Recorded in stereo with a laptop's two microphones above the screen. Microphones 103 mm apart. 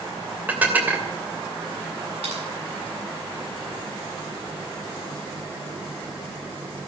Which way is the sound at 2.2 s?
85° right.